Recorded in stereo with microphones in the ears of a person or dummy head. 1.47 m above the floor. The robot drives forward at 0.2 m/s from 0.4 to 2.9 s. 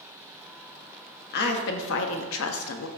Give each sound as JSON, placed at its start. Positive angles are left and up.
{"t": 1.3, "sound": "a woman speaking", "side_deg": 55, "distance_m": 0.6}